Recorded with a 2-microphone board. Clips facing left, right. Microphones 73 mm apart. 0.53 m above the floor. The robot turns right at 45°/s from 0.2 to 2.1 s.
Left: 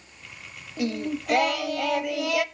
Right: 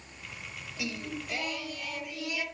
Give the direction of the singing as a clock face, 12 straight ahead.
11 o'clock.